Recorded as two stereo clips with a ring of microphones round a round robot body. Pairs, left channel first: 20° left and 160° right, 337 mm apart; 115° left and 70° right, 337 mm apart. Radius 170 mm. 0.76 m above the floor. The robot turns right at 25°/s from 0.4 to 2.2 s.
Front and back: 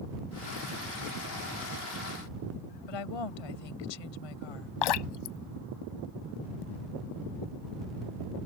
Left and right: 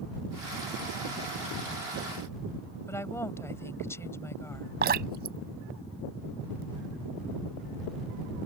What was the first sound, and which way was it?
A woman speaking, 30° left.